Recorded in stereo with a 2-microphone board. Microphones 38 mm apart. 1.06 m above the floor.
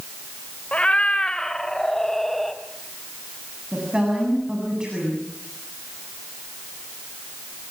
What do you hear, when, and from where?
0.7 s a cat meowing: 35° left (ahead or behind), 1.7 m; by 2.6 s 5° left (ahead or behind), 2.5 m
3.7 s a woman speaking: 25° right (ahead or behind), 7.5 m